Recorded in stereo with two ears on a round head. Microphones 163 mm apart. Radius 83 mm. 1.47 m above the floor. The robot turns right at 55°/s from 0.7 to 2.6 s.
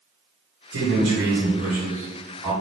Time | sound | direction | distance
0.7 | a man speaking | 100° right | 1.8 m